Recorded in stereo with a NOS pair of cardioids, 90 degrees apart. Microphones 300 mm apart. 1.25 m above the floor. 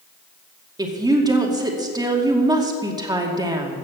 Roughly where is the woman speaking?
Ahead.